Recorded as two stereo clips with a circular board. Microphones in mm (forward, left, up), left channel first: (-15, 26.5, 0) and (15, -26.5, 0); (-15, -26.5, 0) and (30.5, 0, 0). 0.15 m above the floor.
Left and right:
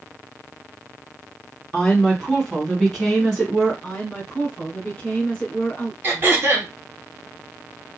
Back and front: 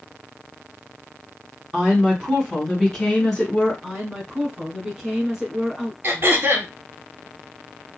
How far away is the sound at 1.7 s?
About 1.6 m.